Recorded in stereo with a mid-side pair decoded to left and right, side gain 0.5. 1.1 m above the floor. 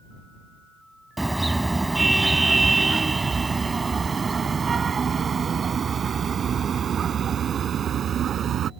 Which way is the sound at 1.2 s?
10° right.